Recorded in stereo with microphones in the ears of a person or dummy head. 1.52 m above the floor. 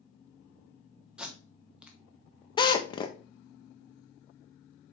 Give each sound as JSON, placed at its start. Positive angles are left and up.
{"t": 1.2, "sound": "tape being pulled", "side_deg": -10, "distance_m": 1.0}
{"t": 2.6, "sound": "a drill", "side_deg": 25, "distance_m": 0.8}